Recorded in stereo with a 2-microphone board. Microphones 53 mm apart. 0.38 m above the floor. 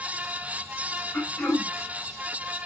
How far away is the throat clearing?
About 1.6 m.